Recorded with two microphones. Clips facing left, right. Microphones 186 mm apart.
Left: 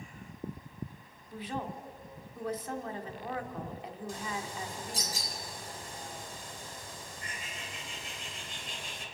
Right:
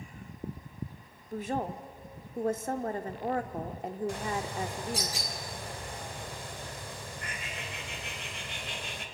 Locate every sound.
1.3 s a woman speaking: 45° right (ahead or behind), 1.7 m
4.1 s a bird: 70° right (ahead or behind), 2.5 m